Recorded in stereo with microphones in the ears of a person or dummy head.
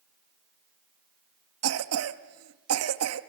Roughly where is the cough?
Right.